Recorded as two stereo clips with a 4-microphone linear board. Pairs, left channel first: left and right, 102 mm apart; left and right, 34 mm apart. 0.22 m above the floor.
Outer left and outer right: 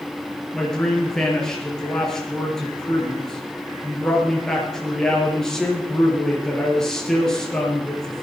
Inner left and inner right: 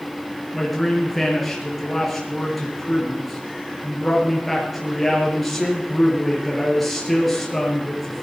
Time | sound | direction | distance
0.5 | a man speaking | 5° left (ahead or behind) | 4 m